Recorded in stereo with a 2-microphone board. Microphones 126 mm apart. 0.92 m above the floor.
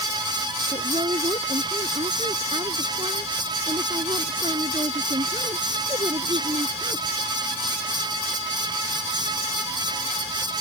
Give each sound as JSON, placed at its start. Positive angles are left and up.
{"t": 0.7, "sound": "a woman speaking", "side_deg": -50}